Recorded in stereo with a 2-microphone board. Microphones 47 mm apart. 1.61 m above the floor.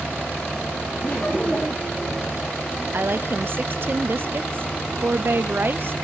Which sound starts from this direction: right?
A woman speaking, at 2.9 s.